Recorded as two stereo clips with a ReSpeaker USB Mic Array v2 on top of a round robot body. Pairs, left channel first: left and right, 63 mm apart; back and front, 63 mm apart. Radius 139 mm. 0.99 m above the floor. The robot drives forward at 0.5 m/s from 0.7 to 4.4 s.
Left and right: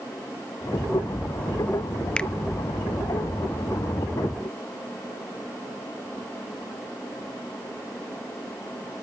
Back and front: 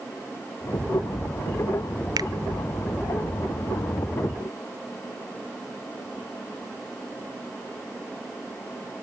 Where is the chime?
No chime in this recording.